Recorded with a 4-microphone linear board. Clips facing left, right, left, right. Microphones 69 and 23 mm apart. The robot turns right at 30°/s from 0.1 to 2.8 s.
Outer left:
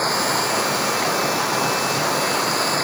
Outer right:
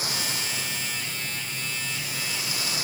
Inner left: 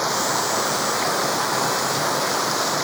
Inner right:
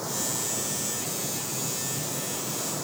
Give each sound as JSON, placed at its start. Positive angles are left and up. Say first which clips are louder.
{"t": 0.0, "sound": "running water", "louder": "outer left 12 dB, inner left 10 dB", "azimuth_deg": 50}